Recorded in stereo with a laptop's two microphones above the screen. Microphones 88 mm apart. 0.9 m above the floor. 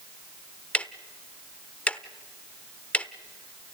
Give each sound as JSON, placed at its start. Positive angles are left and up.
{"t": 0.7, "sound": "ticking", "side_deg": 15, "distance_m": 1.1}